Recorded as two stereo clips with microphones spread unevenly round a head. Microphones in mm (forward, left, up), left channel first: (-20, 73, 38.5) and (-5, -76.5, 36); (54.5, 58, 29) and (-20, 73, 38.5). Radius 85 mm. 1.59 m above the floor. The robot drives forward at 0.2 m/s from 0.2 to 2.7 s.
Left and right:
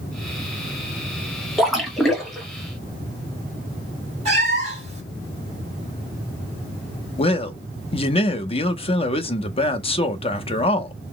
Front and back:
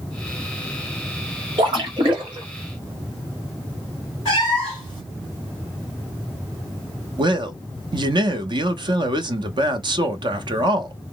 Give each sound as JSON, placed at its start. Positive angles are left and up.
{"t": 1.6, "sound": "a splash", "azimuth_deg": -175, "distance_m": 0.8}
{"t": 4.2, "sound": "a cat meowing", "azimuth_deg": -125, "distance_m": 1.9}
{"t": 7.2, "sound": "a man speaking", "azimuth_deg": 150, "distance_m": 0.6}